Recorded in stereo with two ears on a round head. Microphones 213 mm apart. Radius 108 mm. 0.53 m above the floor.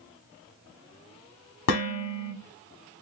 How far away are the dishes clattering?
About 1.1 m.